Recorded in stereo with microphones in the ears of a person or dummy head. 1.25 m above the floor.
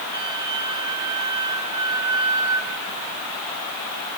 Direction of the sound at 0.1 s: 25° right (ahead or behind).